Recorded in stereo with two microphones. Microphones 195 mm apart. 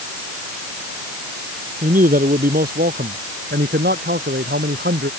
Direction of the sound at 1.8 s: 45° right (ahead or behind).